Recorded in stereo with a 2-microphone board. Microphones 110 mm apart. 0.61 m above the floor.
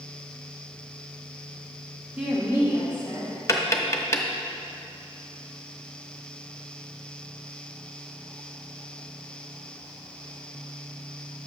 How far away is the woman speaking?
About 1.3 m.